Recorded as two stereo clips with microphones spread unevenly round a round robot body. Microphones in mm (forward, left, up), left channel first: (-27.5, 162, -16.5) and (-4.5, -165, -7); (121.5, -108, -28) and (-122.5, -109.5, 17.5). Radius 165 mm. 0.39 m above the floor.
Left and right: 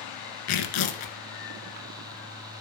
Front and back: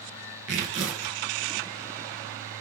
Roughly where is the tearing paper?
Behind left.